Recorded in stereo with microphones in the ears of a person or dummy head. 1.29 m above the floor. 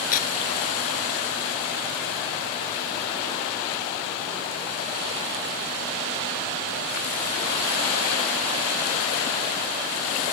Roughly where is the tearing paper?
Left.